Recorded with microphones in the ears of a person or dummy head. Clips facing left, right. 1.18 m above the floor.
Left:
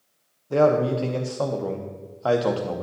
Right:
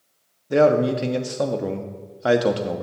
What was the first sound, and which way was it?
A man speaking, 20° right (ahead or behind).